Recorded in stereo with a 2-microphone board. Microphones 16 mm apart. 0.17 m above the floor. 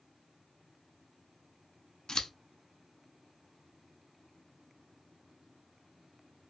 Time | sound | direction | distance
2.1 | scissors | 50° left (ahead or behind) | 0.7 m